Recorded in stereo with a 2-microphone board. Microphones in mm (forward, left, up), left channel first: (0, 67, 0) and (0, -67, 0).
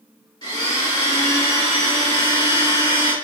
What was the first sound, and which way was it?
A blender, 30° left (ahead or behind).